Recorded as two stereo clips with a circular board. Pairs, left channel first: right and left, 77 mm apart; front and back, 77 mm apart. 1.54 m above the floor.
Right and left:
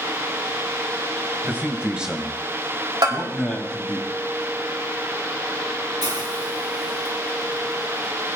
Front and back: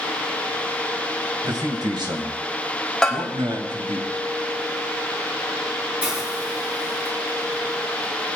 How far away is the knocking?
I don't hear knocking.